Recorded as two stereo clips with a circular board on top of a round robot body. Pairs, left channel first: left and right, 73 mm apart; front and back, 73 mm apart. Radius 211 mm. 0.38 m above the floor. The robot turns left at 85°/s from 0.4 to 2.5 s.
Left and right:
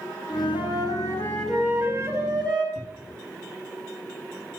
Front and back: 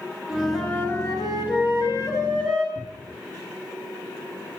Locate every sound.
0.3 s a flute: 100° left, 9.5 m; by 2.6 s 80° right, 9.5 m
2.8 s a cupboard door: 165° right, 2 m